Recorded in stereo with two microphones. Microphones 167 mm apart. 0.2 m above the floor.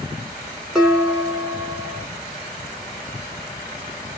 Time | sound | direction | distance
0.8 | dishes clattering | 5° right (ahead or behind) | 1.5 m